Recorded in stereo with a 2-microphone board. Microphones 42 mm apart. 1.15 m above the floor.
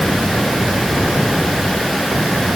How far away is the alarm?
No alarm in this recording.